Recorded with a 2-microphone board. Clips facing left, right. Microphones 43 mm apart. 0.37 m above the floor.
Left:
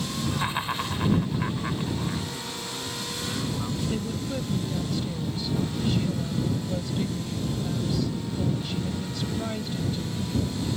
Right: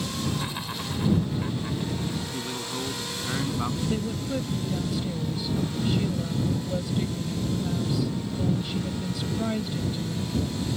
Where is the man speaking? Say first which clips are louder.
Right 3 dB; 30° right (ahead or behind).